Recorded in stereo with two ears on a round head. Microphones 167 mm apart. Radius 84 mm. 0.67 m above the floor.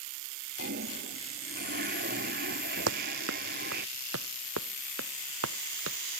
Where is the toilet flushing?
50° right (ahead or behind).